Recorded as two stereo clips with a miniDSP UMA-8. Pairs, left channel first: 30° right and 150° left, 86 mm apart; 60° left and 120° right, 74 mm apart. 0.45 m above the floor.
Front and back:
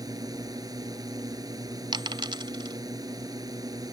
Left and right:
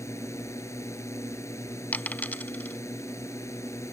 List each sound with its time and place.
0.0 s a drone: 110° left
1.9 s a dropped coin: 125° left